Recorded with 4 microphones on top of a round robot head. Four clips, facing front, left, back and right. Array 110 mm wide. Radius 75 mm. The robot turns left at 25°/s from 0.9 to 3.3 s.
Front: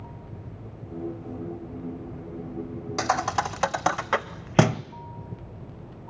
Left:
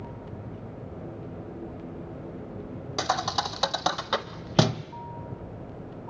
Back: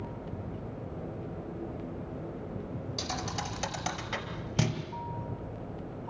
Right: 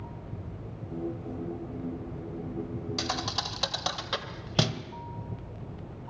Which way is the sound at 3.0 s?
30° left.